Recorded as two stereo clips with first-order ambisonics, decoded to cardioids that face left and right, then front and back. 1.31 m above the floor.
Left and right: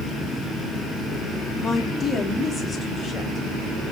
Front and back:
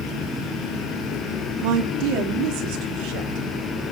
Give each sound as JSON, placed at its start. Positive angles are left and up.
{"t": 1.6, "sound": "a woman speaking", "azimuth_deg": 170, "distance_m": 2.0}